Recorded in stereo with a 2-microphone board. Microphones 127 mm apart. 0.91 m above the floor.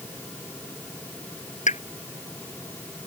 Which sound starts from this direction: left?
A pop, at 1.7 s.